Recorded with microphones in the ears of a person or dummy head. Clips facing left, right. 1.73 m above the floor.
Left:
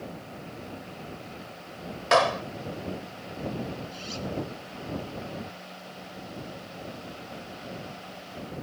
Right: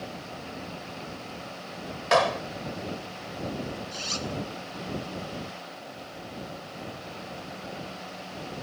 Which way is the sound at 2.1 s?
Centre (ahead or behind).